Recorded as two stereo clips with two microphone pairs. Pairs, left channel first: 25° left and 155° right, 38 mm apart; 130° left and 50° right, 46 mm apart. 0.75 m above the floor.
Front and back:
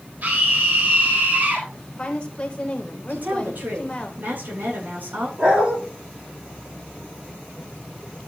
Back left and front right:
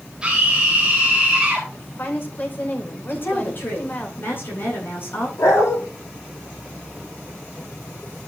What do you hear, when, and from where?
0.2 s a scream: 125° right, 3.5 m
1.7 s a woman speaking: 80° left, 3 m
3.1 s a woman speaking: 170° left, 9 m
5.4 s a dog barking: 145° left, 9 m